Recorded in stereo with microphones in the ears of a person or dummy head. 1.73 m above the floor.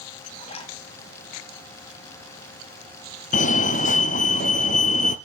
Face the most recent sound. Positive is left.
turn(degrees=40)  # may be behind; listen again after turning